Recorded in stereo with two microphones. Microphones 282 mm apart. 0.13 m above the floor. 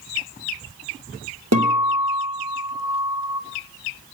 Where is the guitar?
70° right (ahead or behind), 3 m.